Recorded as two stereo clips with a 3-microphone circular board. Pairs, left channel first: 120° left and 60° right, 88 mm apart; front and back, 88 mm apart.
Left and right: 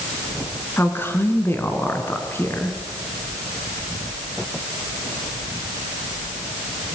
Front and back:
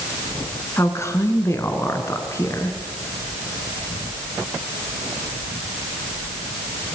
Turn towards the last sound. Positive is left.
turn(degrees=55)